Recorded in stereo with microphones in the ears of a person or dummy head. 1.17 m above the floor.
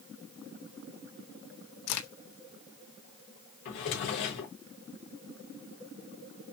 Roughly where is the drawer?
Left.